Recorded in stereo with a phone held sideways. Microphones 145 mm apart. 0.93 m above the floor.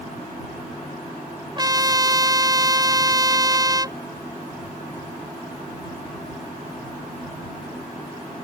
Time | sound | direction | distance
1.6 | a trumpet | 30° right (ahead or behind) | ?